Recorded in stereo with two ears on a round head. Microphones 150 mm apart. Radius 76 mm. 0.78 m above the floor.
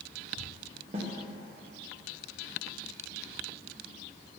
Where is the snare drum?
35° right (ahead or behind), 1.1 m.